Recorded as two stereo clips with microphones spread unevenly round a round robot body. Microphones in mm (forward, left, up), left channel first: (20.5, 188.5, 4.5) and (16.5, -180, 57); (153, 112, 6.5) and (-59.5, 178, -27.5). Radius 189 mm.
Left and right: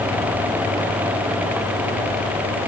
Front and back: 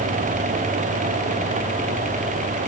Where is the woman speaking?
No woman speaking in this recording.